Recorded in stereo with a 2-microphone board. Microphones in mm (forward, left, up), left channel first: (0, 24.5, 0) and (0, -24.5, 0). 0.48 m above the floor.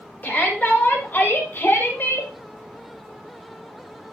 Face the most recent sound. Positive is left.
turn(degrees=50)  # may be behind; listen again after turning